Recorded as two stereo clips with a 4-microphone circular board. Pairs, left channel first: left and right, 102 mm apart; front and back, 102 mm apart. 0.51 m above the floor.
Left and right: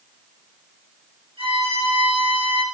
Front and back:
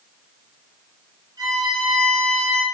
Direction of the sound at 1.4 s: 125° right.